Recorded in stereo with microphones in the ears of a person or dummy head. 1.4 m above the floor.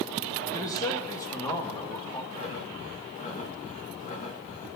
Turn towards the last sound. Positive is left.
turn(degrees=40)  # may be behind; listen again after turning